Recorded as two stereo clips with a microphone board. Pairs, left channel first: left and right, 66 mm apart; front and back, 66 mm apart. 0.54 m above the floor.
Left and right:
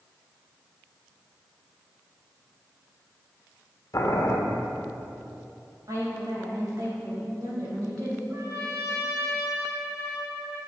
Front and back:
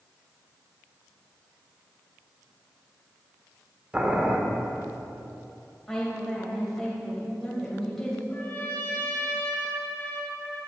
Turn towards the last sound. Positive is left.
turn(degrees=-60)